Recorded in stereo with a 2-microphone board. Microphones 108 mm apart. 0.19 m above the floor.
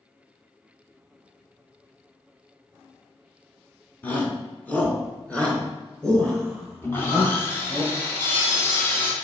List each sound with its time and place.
4.0 s a shout: 15° left (ahead or behind), 1.8 m; by 7.8 s 5° left (ahead or behind), 3.5 m
6.8 s sawing: 20° left (ahead or behind), 2.0 m